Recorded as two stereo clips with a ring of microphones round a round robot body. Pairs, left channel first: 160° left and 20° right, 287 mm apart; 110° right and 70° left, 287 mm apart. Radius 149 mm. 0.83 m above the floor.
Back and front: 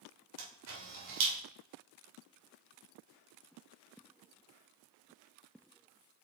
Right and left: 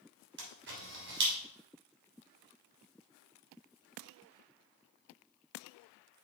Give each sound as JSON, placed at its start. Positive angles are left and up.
{"t": 0.4, "sound": "a camera shutter", "azimuth_deg": 15, "distance_m": 2.5}